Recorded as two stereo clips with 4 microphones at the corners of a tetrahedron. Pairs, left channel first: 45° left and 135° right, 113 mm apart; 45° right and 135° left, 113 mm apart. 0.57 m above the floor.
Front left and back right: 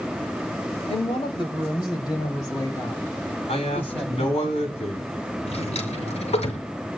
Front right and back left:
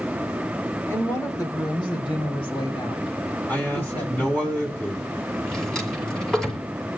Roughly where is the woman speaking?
Ahead.